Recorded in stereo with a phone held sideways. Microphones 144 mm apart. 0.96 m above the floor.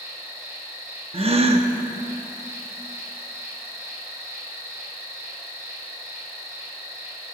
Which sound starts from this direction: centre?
An insect, at 0.0 s.